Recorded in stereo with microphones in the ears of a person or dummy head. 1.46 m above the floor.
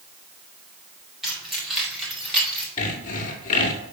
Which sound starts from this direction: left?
Sawing, at 2.8 s.